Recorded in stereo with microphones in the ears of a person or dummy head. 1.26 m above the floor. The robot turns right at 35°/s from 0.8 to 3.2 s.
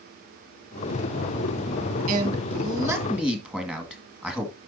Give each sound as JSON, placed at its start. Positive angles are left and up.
{"t": 2.1, "sound": "a man speaking", "azimuth_deg": -45, "distance_m": 2.0}